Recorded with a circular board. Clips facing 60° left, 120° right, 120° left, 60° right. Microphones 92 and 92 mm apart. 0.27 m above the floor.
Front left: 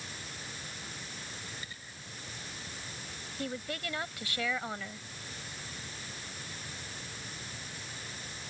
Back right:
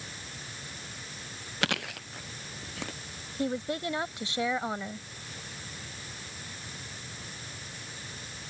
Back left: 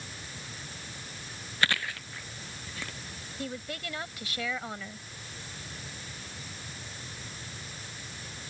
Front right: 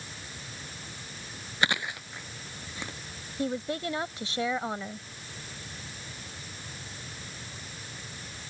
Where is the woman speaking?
85° right.